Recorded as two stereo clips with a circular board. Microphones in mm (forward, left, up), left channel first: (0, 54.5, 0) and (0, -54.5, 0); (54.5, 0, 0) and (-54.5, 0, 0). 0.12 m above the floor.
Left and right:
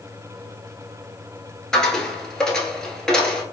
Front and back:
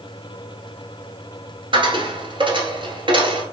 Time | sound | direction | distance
1.7 | a dropped coin | 175° left | 1.0 m